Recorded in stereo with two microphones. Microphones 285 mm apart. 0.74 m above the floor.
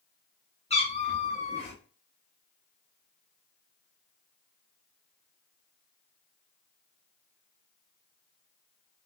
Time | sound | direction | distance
0.7 | a cat meowing | 20° left (ahead or behind) | 1.0 m